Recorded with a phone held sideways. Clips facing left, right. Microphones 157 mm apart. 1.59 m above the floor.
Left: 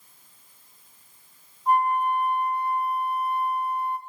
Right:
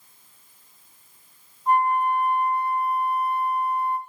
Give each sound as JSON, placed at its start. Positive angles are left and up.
{"t": 1.7, "sound": "a flute", "side_deg": 10, "distance_m": 4.0}